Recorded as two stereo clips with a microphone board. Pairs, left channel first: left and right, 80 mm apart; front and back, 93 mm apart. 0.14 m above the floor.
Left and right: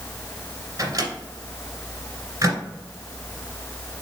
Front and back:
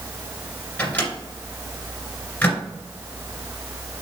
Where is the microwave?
65° right, 2 m.